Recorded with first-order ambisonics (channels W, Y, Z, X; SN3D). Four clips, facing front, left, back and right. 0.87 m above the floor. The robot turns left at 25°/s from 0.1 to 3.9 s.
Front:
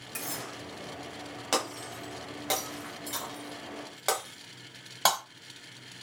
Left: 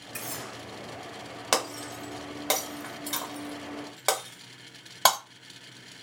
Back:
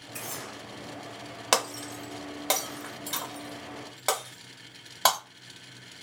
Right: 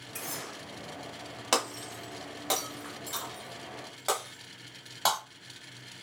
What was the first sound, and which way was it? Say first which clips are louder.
Cutlery clinking: left 1 dB, front 1 dB; 40° left.